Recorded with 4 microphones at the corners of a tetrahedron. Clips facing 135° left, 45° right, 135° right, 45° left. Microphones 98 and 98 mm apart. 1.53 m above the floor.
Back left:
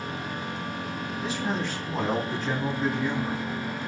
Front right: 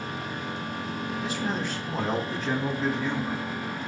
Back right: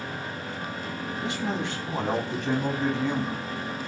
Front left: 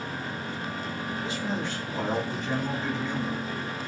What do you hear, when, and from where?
1.2 s a man speaking: 130° right, 4.5 m; by 3.4 s 140° right, 2.5 m